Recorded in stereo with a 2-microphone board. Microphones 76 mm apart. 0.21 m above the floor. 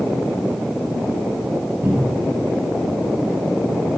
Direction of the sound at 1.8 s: 40° right (ahead or behind).